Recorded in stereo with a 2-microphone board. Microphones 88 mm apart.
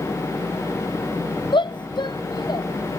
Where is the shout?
65° left (ahead or behind); by 2.6 s 55° left (ahead or behind).